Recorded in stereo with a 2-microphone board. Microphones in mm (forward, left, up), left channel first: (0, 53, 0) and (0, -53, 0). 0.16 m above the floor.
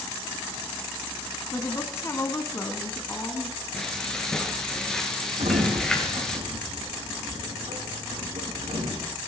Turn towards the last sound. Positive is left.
turn(degrees=-85)